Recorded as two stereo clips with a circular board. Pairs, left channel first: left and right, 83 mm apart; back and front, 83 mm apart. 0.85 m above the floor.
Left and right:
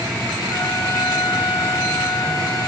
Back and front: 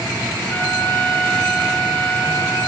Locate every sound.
0.5 s a trumpet: 115° left, 1.1 m